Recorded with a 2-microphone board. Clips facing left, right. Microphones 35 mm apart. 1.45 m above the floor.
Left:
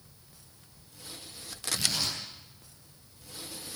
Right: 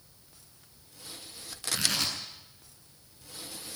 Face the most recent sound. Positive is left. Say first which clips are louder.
# right 1 dB
turn(degrees=-80)